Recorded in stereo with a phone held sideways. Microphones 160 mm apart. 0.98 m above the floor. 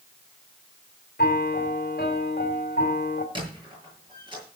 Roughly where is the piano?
Left.